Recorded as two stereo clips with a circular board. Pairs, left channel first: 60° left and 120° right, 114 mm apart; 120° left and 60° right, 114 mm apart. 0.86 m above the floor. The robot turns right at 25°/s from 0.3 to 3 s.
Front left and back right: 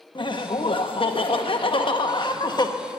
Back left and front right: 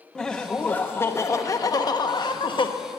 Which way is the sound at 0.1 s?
35° left.